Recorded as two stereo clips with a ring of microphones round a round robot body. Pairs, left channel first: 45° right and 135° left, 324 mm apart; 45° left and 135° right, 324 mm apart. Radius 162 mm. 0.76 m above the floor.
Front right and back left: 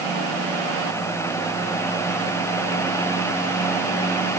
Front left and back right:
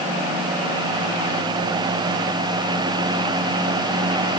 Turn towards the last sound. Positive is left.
No sound to turn to.